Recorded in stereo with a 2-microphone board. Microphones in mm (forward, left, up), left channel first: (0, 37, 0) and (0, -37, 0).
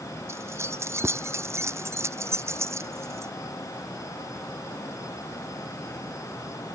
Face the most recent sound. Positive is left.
turn(degrees=-40)  # may be behind; listen again after turning